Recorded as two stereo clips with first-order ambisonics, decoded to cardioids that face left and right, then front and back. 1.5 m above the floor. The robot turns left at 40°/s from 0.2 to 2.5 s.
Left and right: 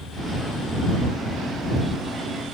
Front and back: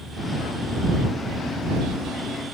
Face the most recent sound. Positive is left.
No sound to turn to.